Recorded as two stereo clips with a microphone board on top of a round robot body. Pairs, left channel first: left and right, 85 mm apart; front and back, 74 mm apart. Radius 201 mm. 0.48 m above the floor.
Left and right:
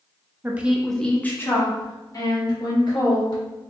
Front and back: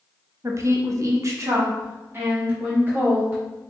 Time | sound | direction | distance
0.4 | a woman speaking | 150° right | 1.1 m